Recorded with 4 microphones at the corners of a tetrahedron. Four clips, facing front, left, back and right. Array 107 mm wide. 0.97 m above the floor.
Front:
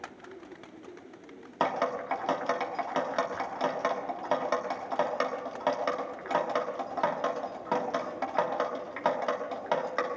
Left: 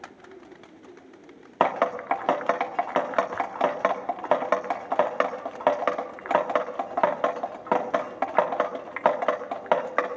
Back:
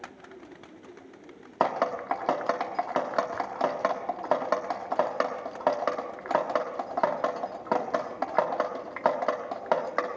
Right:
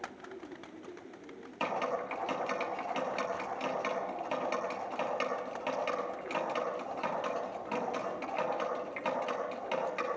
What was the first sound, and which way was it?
Dripping, 115° left.